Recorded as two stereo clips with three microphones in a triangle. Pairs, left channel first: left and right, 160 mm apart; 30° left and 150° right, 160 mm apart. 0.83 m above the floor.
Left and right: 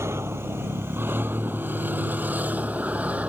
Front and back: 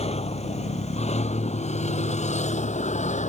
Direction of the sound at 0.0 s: 15° right.